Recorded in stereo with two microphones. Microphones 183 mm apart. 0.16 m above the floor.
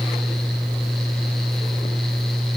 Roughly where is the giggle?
No giggle in this recording.